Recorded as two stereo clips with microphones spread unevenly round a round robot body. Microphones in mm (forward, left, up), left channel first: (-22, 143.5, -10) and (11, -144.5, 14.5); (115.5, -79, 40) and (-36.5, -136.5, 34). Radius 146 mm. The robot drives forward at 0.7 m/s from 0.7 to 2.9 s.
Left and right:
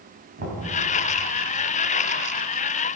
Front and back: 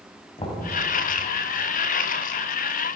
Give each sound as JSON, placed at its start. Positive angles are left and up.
{"t": 0.4, "sound": "knocking", "azimuth_deg": -30, "distance_m": 3.0}